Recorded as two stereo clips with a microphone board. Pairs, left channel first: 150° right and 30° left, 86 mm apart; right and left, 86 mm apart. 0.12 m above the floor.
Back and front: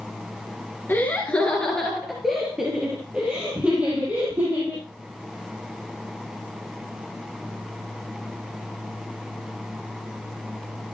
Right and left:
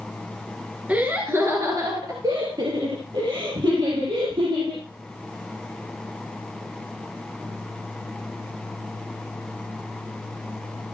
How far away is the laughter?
About 2 m.